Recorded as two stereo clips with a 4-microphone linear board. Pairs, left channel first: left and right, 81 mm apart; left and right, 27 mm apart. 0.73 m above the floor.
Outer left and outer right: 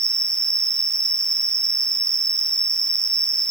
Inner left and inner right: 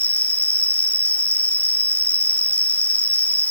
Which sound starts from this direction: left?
An insect, at 0.0 s.